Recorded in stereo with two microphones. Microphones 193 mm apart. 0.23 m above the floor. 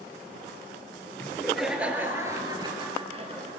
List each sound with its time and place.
1.2 s laughter: 5° left (ahead or behind), 4 m; by 3.5 s 35° right (ahead or behind), 5 m